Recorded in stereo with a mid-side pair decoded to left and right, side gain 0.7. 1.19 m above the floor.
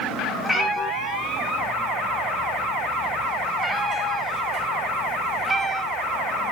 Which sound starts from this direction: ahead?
A cat meowing, at 0.4 s.